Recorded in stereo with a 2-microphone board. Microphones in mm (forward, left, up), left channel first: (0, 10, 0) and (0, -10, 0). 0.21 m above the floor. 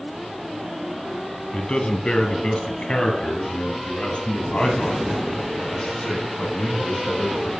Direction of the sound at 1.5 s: 60° left (ahead or behind).